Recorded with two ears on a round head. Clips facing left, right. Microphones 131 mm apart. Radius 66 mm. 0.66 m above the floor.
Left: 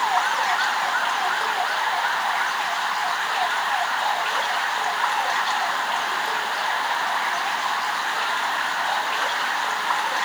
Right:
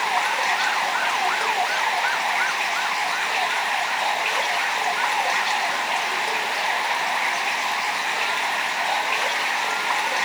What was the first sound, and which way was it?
Running water, 20° right (ahead or behind).